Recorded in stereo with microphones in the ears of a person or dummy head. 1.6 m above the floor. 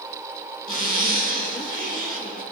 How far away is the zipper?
About 1.3 m.